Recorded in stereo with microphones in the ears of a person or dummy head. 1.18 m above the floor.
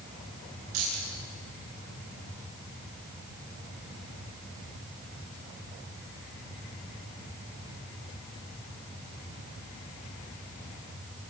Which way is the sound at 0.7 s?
85° right.